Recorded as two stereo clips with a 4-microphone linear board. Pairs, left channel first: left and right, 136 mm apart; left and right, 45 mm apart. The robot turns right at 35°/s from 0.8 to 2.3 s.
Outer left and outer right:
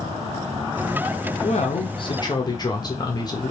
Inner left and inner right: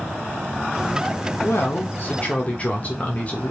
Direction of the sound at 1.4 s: 115° left.